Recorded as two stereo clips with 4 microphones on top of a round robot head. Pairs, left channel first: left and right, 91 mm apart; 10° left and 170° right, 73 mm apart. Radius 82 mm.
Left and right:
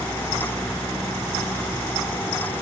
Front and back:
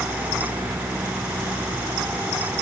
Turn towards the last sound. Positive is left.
No sound to turn to.